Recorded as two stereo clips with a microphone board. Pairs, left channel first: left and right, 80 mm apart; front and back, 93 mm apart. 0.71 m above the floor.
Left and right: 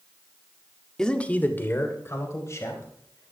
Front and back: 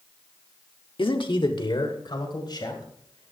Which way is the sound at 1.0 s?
10° left.